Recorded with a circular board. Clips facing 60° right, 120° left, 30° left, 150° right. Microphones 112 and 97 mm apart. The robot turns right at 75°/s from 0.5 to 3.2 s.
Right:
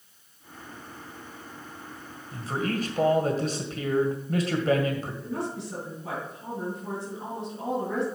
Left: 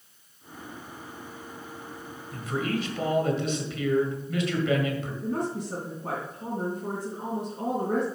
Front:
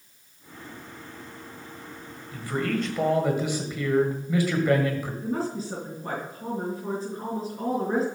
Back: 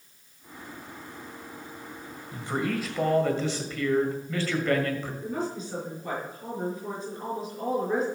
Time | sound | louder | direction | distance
2.3 | a man speaking | even, front 2 dB | 105° right | 1.9 m
5.2 | a woman speaking | left 3 dB, front 5 dB | 80° left | 4 m